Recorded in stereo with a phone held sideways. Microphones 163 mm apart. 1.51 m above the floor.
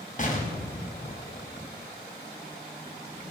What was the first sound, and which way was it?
An explosion, 50° left (ahead or behind).